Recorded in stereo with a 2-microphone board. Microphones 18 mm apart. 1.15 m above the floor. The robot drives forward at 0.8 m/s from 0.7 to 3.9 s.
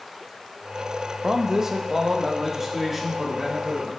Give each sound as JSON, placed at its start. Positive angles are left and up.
{"t": 1.2, "sound": "a man speaking", "side_deg": -35, "distance_m": 0.7}